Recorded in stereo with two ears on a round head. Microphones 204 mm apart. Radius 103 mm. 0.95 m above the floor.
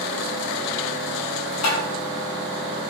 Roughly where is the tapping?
Left.